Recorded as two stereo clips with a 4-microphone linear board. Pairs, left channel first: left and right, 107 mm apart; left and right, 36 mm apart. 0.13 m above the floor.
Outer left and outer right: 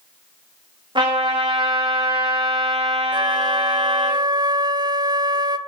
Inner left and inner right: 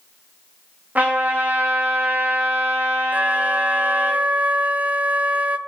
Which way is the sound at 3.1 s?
40° right (ahead or behind).